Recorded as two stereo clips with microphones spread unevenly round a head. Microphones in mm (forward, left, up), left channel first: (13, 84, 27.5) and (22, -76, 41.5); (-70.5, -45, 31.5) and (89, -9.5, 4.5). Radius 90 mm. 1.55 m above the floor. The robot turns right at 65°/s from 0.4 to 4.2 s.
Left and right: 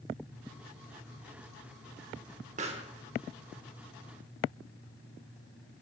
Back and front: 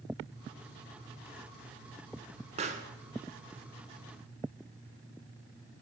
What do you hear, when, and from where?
2.6 s a pop: 40° right, 1.3 m; by 2.9 s 20° right, 1.3 m